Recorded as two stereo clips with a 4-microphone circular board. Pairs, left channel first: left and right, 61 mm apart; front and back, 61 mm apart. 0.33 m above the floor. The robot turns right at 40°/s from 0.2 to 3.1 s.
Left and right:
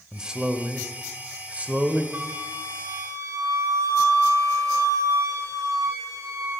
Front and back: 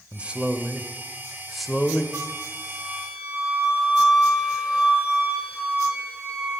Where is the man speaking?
150° right, 1.0 m; by 2.0 s 75° right, 1.0 m.